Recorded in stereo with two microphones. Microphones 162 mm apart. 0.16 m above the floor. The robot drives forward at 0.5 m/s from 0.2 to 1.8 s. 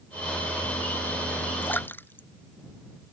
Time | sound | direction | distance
1.6 | a splash | 10° left (ahead or behind) | ?